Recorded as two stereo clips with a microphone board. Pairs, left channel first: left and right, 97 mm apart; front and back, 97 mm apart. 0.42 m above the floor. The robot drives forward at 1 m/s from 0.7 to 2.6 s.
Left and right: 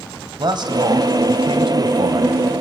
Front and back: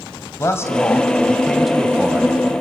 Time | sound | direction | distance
0.4 | a man speaking | 60° right | 2.0 m